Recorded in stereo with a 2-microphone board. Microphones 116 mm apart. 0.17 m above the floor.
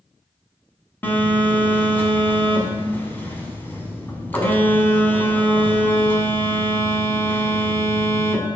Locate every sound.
1.0 s a phone buzzing: 20° left (ahead or behind), 1.0 m